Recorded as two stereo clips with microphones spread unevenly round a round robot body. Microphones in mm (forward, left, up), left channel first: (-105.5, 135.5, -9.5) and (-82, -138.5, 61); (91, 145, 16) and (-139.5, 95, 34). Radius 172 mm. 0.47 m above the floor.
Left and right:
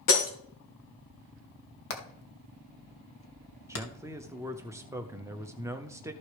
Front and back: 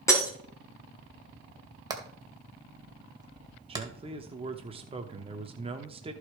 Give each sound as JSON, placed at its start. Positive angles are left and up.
{"t": 0.1, "sound": "breaking glass", "azimuth_deg": 90, "distance_m": 3.5}
{"t": 1.9, "sound": "hammering", "azimuth_deg": 115, "distance_m": 2.5}
{"t": 3.7, "sound": "a man speaking", "azimuth_deg": 170, "distance_m": 0.9}